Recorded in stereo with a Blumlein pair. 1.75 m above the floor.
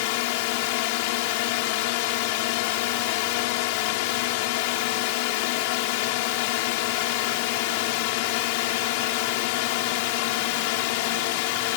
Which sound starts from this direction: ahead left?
A drone, at 0.0 s.